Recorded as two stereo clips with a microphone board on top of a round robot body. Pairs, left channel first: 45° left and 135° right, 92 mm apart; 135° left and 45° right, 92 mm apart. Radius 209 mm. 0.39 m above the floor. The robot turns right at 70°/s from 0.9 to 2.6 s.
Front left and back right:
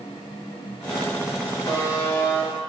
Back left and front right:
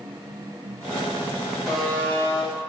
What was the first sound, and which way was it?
A buzzer, 45° left.